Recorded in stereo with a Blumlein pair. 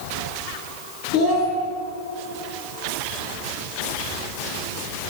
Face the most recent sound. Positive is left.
turn(degrees=45)